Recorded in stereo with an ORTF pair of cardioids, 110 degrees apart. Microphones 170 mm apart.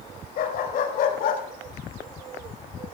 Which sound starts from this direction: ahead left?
A dog barking, at 0.4 s.